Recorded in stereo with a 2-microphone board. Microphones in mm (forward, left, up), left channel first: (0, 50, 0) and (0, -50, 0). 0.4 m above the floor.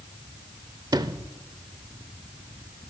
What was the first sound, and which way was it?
A sliding door, 40° right (ahead or behind).